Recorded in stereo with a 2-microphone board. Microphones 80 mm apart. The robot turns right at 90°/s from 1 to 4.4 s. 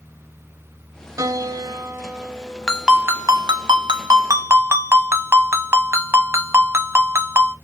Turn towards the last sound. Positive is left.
turn(degrees=-35)